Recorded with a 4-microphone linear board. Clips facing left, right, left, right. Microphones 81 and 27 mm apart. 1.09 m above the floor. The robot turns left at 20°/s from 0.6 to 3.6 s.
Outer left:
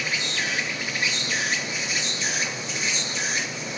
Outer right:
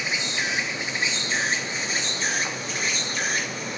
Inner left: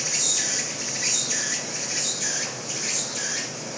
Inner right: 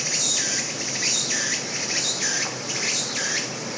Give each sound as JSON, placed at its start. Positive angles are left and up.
{"t": 0.0, "sound": "an insect", "azimuth_deg": -30, "distance_m": 0.9}